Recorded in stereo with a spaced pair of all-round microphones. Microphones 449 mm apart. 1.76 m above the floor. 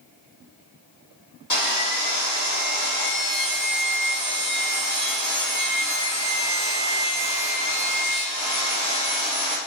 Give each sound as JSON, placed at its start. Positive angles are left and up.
{"t": 1.5, "sound": "sawing", "side_deg": 40, "distance_m": 1.0}